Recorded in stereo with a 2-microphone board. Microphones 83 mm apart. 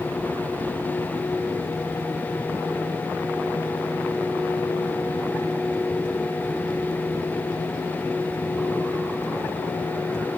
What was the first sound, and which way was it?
Only background noise.